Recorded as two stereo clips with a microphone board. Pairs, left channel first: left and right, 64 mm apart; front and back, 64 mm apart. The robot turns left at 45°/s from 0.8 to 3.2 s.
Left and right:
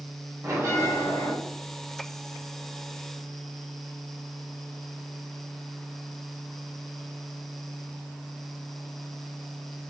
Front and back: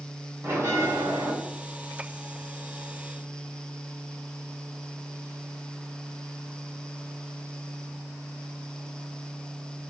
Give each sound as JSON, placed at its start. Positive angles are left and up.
{"t": 0.4, "sound": "a bell", "azimuth_deg": -135, "distance_m": 1.9}